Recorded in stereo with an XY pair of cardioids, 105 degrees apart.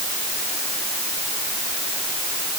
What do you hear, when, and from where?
Only background noise.